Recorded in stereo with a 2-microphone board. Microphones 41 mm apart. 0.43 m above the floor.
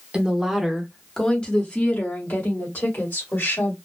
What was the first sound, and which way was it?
A woman speaking, 25° right (ahead or behind).